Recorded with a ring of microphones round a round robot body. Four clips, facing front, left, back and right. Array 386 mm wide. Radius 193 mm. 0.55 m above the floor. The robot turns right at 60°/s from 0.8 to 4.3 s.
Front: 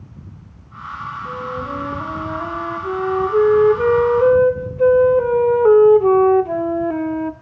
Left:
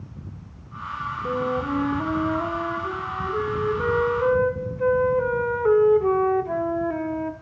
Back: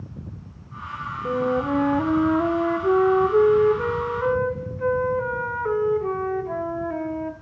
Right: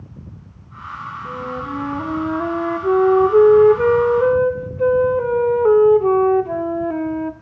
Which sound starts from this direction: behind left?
A flute, at 1.2 s.